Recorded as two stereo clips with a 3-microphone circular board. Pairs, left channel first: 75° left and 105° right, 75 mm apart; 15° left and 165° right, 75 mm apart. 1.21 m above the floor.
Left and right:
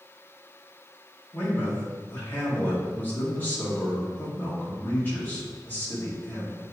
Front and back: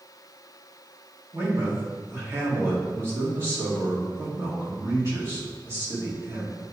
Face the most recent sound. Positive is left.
turn(degrees=140)